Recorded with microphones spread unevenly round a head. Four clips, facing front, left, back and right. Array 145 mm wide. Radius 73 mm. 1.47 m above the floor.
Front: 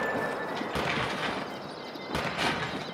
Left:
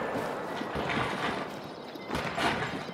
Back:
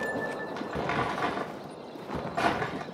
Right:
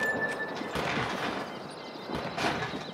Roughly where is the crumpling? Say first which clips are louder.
Even, back 3 dB; behind.